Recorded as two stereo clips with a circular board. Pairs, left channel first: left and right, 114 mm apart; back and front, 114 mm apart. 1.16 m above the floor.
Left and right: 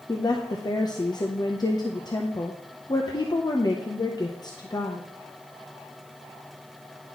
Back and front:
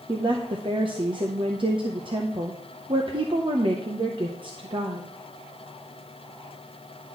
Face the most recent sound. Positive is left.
turn(degrees=40)